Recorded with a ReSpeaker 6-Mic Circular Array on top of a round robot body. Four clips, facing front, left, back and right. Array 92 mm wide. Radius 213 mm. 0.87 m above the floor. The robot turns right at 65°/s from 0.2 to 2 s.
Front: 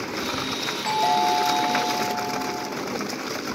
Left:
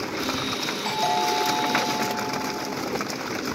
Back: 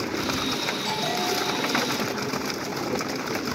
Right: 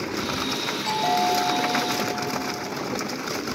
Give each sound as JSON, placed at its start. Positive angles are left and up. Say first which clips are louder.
{"t": 0.8, "sound": "a doorbell", "louder": "right 1 dB, front 9 dB", "azimuth_deg": 60, "distance_m": 5.0}